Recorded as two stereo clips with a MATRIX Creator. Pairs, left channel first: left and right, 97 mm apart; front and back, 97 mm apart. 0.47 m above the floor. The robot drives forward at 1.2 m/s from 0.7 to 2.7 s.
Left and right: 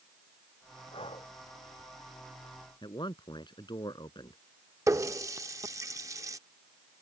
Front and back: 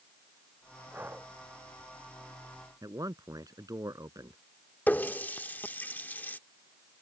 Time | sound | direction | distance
0.9 | breathing | 110° left | ?
2.8 | a man speaking | 125° left | ?
4.9 | a running tap | 60° right | ?